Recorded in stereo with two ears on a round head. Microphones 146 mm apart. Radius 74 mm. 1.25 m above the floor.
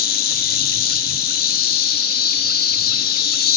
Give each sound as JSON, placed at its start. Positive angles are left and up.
{"t": 0.0, "sound": "an insect", "side_deg": 65, "distance_m": 4.0}